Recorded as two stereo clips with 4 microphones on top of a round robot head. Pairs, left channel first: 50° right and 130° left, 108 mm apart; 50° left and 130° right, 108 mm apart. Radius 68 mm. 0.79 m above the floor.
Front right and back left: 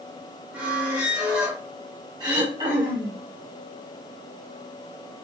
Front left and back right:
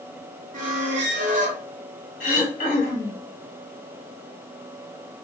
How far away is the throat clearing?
About 1.1 m.